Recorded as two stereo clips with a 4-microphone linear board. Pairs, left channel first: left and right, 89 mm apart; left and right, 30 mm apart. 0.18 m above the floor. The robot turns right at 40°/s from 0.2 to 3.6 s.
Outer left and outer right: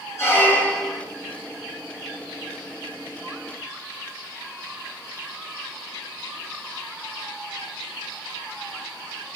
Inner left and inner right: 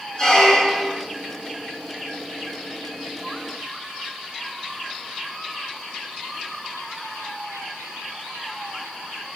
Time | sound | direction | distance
0.2 | a squeak | 150° left | 1.0 m